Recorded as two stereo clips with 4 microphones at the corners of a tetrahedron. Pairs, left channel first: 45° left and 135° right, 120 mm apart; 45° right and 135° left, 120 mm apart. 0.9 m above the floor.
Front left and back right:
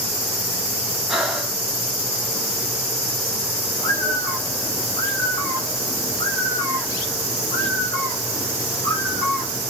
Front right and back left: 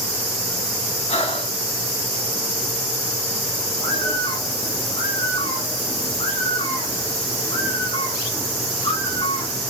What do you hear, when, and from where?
1.1 s breathing: 50° right, 0.7 m
3.8 s a bird: 15° right, 1.2 m